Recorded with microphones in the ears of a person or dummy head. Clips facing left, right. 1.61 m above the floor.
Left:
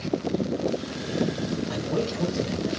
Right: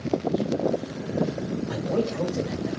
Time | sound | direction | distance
1.7 | a man speaking | 50° right (ahead or behind) | 2.5 m